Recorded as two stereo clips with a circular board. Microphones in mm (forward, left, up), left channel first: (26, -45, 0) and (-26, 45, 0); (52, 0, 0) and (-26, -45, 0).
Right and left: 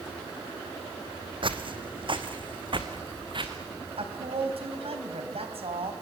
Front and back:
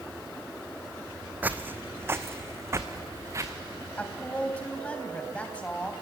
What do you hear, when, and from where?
1.4 s footsteps: 145° left, 1.3 m; by 3.5 s 160° left, 2.5 m
4.0 s a woman speaking: 105° left, 3.5 m